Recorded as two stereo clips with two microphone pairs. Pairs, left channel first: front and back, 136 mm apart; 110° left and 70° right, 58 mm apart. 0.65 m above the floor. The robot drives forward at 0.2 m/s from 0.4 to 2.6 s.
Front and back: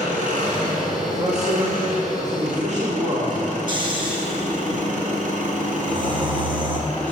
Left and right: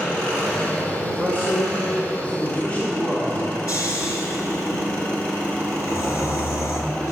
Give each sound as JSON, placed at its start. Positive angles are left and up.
{"t": 0.0, "sound": "an engine running", "azimuth_deg": 170, "distance_m": 3.0}
{"t": 1.0, "sound": "a man speaking", "azimuth_deg": 165, "distance_m": 1.8}
{"t": 3.7, "sound": "snoring", "azimuth_deg": 130, "distance_m": 2.0}